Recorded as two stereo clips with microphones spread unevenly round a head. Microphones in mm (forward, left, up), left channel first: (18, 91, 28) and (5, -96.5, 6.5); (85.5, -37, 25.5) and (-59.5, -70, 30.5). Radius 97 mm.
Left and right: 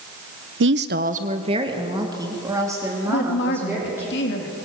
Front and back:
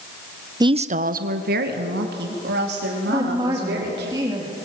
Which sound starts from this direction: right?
A woman speaking, at 0.6 s.